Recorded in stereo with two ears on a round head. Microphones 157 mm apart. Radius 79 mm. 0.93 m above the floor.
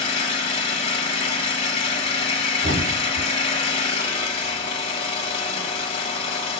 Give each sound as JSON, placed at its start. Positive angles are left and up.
{"t": 0.0, "sound": "an engine running", "side_deg": 35, "distance_m": 2.0}
{"t": 2.6, "sound": "a thud", "side_deg": -60, "distance_m": 2.5}